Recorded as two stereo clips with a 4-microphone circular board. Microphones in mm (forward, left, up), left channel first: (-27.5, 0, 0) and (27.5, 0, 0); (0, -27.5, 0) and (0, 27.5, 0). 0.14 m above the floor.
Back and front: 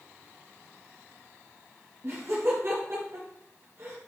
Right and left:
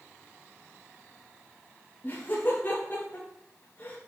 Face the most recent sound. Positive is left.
turn(degrees=-40)